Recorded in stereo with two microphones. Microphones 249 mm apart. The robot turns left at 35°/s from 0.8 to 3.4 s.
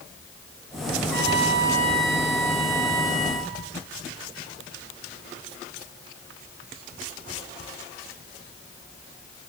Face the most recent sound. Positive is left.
turn(degrees=-25)